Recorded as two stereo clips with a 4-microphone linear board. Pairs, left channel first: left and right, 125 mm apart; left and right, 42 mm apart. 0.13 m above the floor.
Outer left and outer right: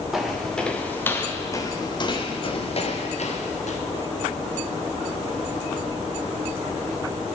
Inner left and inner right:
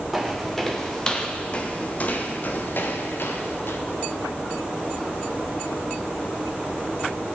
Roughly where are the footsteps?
Centre.